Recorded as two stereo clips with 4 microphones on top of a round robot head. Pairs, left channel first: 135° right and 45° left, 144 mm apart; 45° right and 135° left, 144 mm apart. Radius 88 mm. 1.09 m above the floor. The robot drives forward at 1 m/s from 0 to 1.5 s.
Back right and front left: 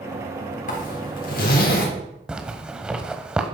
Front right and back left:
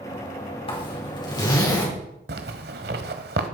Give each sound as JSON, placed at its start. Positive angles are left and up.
{"t": 0.7, "sound": "a zipper", "azimuth_deg": -100, "distance_m": 4.5}
{"t": 2.3, "sound": "a zipper", "azimuth_deg": 130, "distance_m": 1.2}